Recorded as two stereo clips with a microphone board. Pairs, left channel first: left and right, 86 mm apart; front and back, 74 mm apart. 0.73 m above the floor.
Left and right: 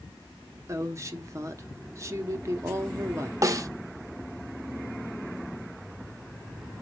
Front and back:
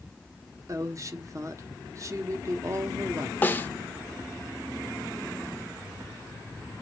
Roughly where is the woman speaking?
Behind right.